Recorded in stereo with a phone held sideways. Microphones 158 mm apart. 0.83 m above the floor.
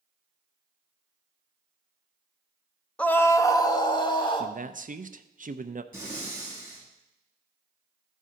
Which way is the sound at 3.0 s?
5° left (ahead or behind).